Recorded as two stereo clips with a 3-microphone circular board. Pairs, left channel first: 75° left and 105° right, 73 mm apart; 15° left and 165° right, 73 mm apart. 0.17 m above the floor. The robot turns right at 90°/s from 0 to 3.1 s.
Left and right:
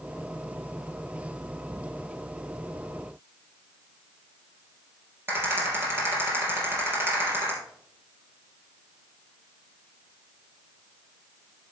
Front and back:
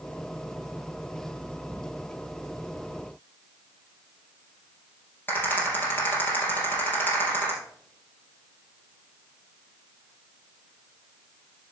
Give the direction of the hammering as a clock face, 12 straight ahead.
No hammering in this recording.